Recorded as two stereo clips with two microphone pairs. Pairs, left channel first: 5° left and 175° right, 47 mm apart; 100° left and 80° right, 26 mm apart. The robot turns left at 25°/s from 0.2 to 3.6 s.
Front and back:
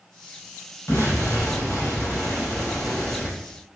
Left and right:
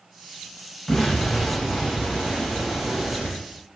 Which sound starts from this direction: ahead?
An explosion, at 0.9 s.